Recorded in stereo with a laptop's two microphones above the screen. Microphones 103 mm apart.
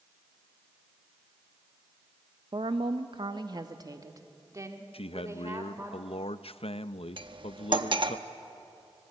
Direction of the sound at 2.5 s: 50° right (ahead or behind).